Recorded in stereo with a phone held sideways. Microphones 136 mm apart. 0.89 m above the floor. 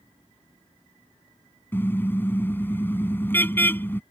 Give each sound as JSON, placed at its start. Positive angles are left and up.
{"t": 1.7, "sound": "a car horn", "side_deg": 15}